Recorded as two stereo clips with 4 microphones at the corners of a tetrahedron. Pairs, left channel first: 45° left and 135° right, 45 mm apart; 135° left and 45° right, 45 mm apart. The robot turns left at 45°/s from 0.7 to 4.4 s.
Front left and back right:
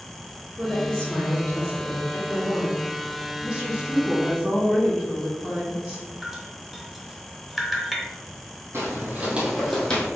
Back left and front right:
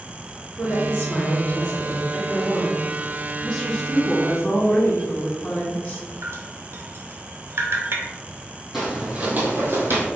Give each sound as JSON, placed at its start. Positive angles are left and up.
{"t": 0.6, "sound": "a woman speaking", "azimuth_deg": 110, "distance_m": 1.9}
{"t": 3.4, "sound": "a woman speaking", "azimuth_deg": -125, "distance_m": 1.0}
{"t": 6.2, "sound": "dripping", "azimuth_deg": -50, "distance_m": 0.6}
{"t": 8.7, "sound": "footsteps", "azimuth_deg": -125, "distance_m": 1.4}